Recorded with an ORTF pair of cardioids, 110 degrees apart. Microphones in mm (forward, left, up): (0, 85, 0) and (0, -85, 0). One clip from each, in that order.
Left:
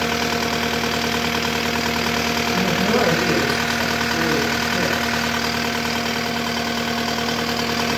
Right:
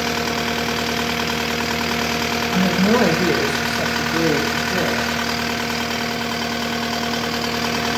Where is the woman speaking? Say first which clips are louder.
Right 3 dB; 30° right, 2 m; by 5.1 s 75° right, 3 m.